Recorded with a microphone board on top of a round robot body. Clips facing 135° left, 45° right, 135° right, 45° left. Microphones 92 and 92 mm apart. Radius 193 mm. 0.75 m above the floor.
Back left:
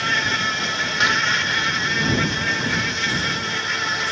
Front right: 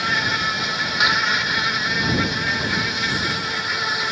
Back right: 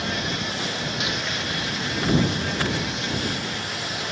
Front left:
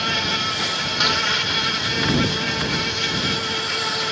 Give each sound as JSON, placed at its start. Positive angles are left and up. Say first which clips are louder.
{"t": 0.0, "sound": "an insect", "louder": "even, front left 3 dB", "azimuth_deg": 35}